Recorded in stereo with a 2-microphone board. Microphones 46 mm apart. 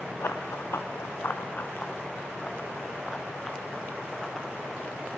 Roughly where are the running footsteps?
Left.